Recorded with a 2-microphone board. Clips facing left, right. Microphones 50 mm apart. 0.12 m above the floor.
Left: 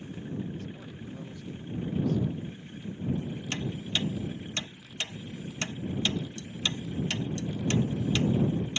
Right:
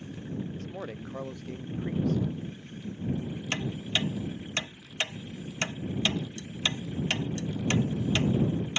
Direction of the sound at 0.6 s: 50° right (ahead or behind).